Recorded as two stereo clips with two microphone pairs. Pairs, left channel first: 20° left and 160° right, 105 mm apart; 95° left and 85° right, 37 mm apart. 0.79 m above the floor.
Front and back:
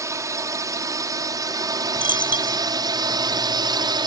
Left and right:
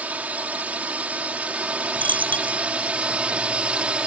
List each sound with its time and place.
0.0 s a drone: 110° right; by 4.1 s 135° right
2.0 s a dropped coin: 130° left